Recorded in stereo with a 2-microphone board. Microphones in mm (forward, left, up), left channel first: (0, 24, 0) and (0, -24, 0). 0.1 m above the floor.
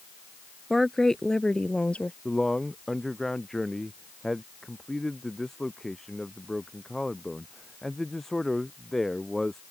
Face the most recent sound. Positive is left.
turn(degrees=5)  # may be behind; listen again after turning